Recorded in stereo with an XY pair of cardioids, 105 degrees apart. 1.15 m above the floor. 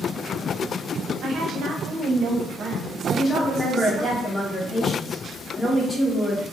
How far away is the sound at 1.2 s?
About 0.8 m.